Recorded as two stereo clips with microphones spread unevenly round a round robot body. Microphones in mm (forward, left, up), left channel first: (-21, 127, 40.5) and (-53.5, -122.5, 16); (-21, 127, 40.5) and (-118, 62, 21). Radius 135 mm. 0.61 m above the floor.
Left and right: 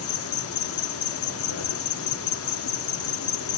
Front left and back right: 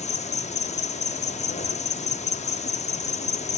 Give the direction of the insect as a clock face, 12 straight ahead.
10 o'clock.